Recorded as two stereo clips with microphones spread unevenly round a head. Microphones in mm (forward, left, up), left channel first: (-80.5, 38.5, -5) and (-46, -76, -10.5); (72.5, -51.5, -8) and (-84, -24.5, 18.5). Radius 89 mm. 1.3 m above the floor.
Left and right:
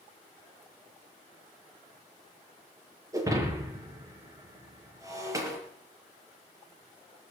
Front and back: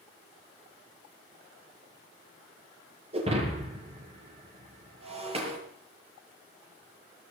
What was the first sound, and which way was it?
Breaking glass, 135° right.